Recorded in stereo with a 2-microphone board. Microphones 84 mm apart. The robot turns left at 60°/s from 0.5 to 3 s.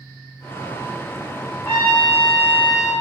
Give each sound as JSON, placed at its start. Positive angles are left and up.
{"t": 1.6, "sound": "a trumpet", "azimuth_deg": 145, "distance_m": 1.1}